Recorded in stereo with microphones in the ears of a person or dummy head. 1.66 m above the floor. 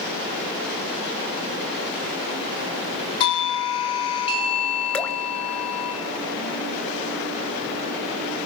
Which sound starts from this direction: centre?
Dripping, at 4.9 s.